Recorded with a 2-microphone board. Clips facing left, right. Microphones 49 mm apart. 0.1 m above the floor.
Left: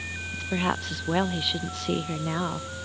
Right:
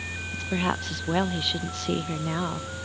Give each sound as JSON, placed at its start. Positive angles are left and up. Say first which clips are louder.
{"t": 0.3, "sound": "a woman speaking", "louder": "even", "side_deg": 0}